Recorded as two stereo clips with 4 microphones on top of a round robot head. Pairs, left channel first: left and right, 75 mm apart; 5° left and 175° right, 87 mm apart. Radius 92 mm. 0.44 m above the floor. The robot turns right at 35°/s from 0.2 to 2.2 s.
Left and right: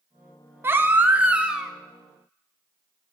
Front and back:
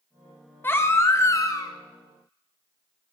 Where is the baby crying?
50° right, 0.9 m; by 1.7 s 10° right, 0.9 m.